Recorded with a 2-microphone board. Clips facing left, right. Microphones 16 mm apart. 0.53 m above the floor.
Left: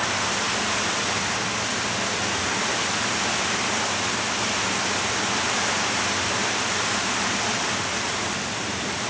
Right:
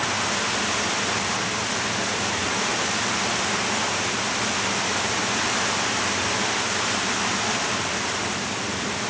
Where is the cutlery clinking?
I don't hear cutlery clinking.